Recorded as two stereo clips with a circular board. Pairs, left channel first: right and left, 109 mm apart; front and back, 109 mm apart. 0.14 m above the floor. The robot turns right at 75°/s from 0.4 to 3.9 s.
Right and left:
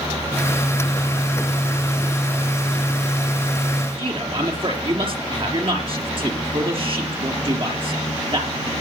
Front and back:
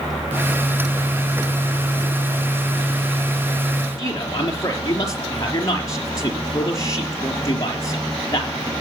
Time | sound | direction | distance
4.0 | a man speaking | 55° left | 3.5 m